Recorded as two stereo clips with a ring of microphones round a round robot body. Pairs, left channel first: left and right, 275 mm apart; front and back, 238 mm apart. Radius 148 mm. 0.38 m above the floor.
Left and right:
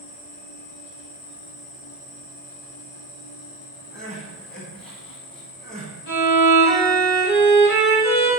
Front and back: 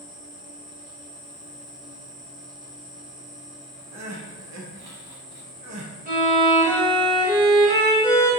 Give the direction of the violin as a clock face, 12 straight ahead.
8 o'clock.